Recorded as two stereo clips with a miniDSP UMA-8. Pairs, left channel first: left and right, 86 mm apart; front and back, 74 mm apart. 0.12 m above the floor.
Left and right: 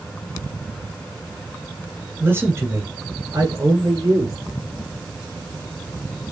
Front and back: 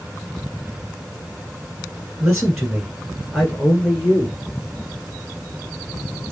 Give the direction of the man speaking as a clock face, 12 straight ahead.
4 o'clock.